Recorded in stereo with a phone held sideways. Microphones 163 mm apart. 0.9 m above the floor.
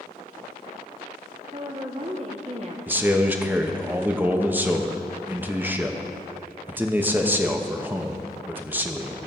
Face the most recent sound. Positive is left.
turn(degrees=-10)  # may be behind; listen again after turning